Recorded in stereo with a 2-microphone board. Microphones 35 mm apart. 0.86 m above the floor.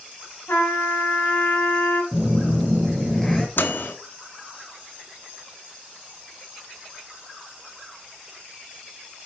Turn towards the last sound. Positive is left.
turn(degrees=70)  # may be behind; listen again after turning